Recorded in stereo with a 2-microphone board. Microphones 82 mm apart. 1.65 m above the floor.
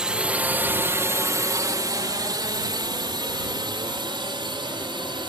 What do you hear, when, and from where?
0.0 s a drone: 10° right (ahead or behind); by 5.3 s 85° right